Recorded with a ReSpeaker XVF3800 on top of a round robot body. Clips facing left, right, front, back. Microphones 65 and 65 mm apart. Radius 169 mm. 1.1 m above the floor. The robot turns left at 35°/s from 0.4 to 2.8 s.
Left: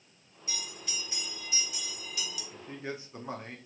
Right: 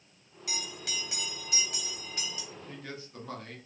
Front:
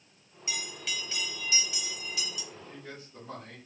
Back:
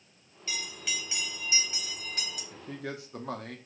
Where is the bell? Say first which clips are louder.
Right 3 dB, even; 75° right, 1.6 m; by 2.4 s 145° right, 1.6 m.